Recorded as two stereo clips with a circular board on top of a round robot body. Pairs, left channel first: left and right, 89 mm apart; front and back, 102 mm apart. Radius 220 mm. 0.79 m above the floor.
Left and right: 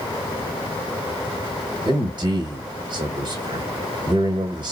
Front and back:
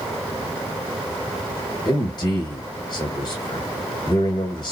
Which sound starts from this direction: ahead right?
A man speaking, at 1.9 s.